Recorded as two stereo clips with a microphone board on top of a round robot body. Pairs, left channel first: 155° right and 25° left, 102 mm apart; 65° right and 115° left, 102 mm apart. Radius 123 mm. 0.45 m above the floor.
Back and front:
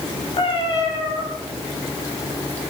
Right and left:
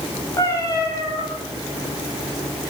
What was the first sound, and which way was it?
A cat meowing, 125° right.